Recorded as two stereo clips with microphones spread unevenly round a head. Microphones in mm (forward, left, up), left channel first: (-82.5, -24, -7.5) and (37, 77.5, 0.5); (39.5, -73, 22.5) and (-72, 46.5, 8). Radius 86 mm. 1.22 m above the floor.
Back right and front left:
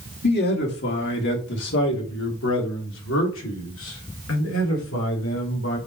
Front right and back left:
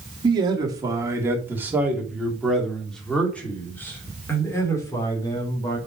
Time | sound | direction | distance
0.2 | a man speaking | 165° right | 3 m